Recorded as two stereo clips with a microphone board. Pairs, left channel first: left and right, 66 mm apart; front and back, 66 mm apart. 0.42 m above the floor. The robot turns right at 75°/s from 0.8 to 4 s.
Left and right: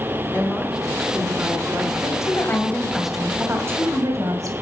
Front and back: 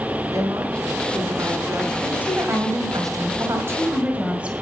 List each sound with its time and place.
0.3 s a woman speaking: 145° left, 5 m; by 1.9 s 130° right, 5 m
2.0 s a woman speaking: 100° left, 2.5 m; by 4.5 s 110° right, 2.5 m